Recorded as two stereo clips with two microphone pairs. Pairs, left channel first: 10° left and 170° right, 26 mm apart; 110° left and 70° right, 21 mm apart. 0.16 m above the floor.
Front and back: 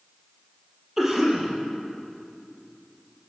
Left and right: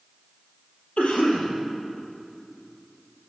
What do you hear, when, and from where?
1.0 s a cough: 110° left, 4 m